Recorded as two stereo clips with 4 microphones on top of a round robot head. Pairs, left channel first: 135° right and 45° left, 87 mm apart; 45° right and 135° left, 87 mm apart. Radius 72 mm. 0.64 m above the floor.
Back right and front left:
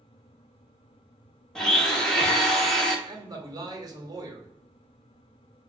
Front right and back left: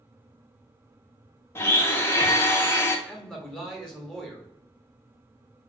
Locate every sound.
1.6 s a blender: 55° right, 0.9 m
3.1 s a man speaking: 40° left, 1.0 m